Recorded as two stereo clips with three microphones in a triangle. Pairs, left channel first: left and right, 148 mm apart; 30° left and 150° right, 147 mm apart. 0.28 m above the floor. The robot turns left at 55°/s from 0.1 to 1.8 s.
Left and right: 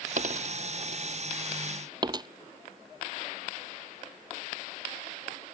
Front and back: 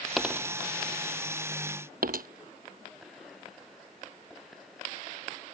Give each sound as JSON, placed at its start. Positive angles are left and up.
{"t": 0.2, "sound": "a dropped coin", "azimuth_deg": -60}